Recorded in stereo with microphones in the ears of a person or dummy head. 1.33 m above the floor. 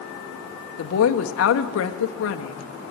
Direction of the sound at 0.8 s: 85° left.